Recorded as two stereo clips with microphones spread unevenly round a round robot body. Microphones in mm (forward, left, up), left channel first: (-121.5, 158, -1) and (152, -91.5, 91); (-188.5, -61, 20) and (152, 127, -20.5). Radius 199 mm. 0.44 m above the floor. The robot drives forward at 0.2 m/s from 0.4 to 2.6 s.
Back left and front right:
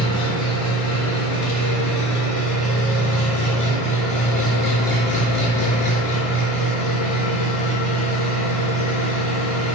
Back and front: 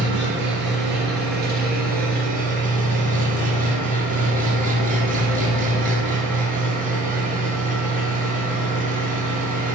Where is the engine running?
90° left, 3 m; by 9.8 s 100° left, 3 m.